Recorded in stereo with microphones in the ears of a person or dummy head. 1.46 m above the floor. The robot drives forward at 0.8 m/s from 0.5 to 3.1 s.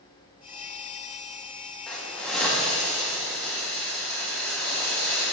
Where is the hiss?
5° left (ahead or behind), 1.4 m.